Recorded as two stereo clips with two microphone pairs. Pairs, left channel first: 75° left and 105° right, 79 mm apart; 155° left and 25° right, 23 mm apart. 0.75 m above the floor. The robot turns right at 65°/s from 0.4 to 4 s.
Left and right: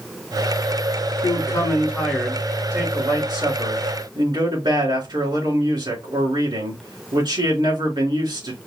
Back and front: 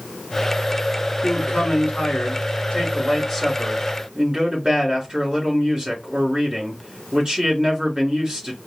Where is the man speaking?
90° left, 3 m; by 8.6 s 90° right, 3 m.